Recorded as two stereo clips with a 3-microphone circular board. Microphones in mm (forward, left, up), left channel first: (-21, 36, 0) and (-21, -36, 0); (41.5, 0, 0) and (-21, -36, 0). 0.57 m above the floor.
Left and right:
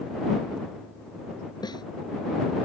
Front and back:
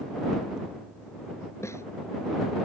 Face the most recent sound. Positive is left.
turn(degrees=80)